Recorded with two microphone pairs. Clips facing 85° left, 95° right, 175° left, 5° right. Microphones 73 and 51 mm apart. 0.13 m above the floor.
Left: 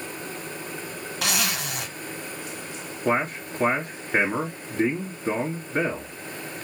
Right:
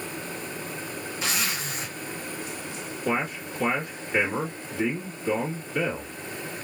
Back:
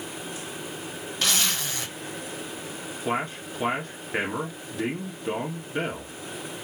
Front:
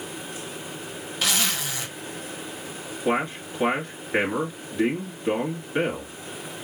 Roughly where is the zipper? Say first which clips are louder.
Left 3 dB, front 1 dB; left.